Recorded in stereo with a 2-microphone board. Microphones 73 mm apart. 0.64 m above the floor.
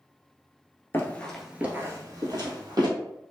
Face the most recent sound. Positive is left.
turn(degrees=-65)  # may be behind; listen again after turning